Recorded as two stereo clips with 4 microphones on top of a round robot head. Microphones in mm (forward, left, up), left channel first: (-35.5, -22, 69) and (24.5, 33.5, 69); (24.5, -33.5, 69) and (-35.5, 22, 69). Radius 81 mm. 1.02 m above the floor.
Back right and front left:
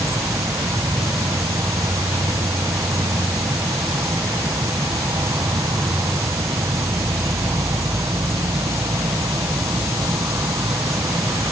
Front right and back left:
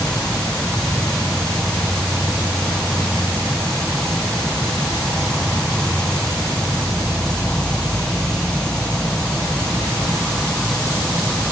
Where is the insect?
35° left.